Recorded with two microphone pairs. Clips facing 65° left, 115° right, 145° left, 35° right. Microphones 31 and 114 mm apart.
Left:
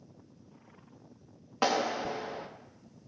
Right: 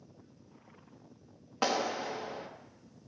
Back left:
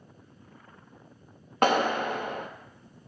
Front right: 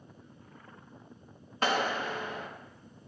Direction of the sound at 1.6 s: 145° left.